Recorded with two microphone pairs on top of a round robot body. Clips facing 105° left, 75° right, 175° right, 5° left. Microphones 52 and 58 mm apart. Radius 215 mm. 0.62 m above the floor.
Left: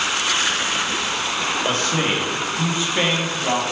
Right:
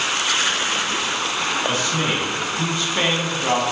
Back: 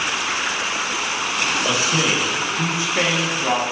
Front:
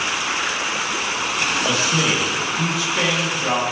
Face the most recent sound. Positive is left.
turn(degrees=-135)